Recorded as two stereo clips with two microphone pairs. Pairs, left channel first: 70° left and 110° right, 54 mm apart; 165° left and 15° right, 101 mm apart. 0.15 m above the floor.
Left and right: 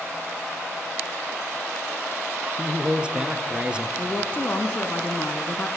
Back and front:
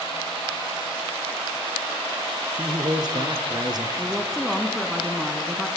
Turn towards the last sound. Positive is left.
turn(degrees=75)